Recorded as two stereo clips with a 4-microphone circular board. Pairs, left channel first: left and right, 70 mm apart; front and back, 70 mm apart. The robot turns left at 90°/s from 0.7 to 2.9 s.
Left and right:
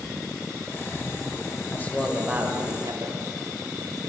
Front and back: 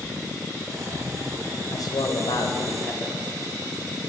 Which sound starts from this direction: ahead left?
A man speaking, at 1.7 s.